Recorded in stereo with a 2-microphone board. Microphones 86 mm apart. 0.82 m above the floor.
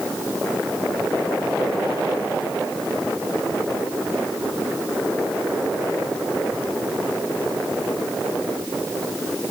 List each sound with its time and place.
Only background noise.